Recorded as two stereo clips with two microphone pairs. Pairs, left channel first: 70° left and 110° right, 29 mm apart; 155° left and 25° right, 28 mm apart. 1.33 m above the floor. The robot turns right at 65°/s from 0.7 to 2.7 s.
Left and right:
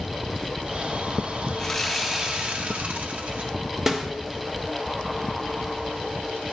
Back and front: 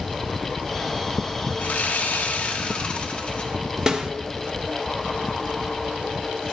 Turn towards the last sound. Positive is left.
turn(degrees=-60)